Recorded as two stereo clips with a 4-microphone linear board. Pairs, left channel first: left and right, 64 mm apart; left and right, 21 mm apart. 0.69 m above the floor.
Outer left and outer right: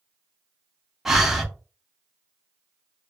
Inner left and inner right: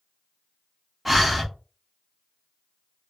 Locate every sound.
1.1 s breathing: 5° right (ahead or behind), 0.7 m